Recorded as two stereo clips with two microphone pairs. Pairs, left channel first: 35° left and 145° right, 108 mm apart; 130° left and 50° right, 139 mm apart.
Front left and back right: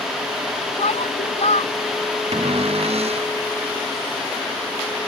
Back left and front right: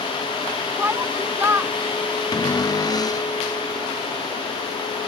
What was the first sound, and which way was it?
A shout, 25° left.